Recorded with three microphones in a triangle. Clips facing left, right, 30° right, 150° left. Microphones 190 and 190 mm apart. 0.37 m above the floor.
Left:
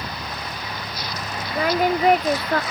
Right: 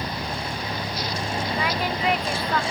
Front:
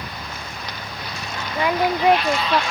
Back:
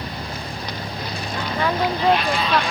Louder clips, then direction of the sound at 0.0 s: Right 3 dB, back 4 dB; 150° right.